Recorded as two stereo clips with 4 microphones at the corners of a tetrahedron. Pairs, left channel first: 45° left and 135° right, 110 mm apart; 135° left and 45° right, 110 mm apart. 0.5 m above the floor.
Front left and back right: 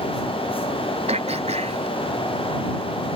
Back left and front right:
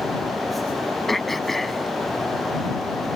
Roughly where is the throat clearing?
Behind right.